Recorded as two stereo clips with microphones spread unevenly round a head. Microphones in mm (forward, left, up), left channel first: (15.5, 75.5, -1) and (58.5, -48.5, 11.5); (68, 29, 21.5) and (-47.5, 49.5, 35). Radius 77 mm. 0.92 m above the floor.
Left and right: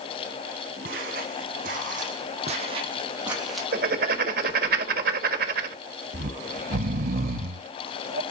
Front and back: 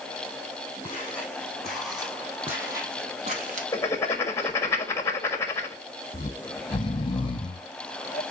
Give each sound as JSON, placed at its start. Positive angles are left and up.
{"t": 0.8, "sound": "footsteps", "azimuth_deg": -90, "distance_m": 4.0}
{"t": 3.7, "sound": "writing", "azimuth_deg": -80, "distance_m": 1.4}
{"t": 6.1, "sound": "snoring", "azimuth_deg": -65, "distance_m": 1.0}